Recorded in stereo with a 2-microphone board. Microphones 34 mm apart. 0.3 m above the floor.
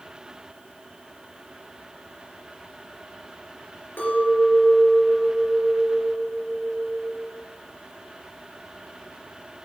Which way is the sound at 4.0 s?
75° left (ahead or behind).